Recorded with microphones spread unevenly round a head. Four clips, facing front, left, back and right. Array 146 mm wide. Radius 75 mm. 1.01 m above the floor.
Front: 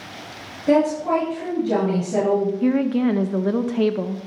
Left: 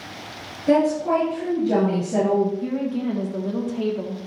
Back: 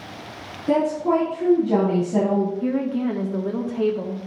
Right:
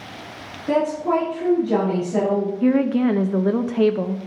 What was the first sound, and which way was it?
A woman speaking, 25° left.